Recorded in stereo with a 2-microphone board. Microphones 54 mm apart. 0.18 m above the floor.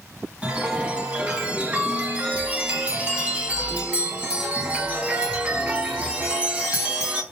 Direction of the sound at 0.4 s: 20° right (ahead or behind).